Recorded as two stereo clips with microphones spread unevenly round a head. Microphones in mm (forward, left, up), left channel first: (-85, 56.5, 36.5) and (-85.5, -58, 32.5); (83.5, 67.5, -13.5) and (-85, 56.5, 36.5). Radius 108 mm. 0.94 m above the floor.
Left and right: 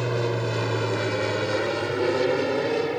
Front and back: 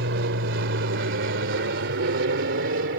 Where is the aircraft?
Straight behind.